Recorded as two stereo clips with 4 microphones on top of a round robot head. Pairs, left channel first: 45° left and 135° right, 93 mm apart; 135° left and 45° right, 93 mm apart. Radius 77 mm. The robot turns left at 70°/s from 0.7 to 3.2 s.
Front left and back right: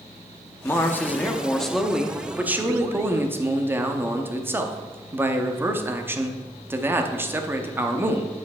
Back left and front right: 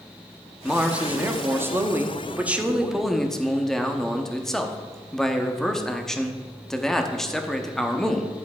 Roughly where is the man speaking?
Ahead left.